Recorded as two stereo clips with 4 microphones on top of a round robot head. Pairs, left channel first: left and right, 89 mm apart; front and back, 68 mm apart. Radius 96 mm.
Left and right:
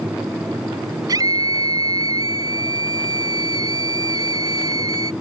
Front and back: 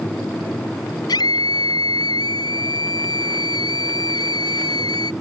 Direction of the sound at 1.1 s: 35° right.